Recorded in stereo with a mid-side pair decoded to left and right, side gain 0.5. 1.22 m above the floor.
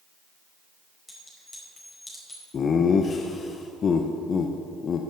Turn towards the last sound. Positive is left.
turn(degrees=45)